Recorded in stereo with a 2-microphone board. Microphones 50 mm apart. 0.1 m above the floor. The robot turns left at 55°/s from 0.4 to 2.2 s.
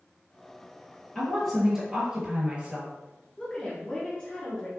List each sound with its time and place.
1.1 s a woman speaking: 25° left, 1.9 m; by 2.9 s 30° right, 1.9 m
3.4 s a woman speaking: 15° left (ahead or behind), 1.1 m